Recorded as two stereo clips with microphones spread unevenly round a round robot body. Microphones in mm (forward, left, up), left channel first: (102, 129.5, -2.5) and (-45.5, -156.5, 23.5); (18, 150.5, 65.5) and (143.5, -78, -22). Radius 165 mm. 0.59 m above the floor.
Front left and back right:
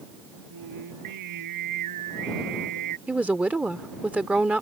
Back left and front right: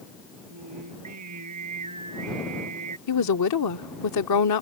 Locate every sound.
0.5 s singing: 90° right
3.1 s a woman speaking: 155° left